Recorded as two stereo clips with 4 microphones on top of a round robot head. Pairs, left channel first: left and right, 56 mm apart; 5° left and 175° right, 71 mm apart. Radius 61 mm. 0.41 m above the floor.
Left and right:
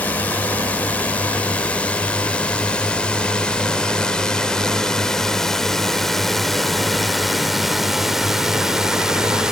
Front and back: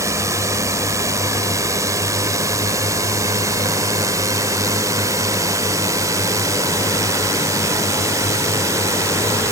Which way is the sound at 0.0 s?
150° left.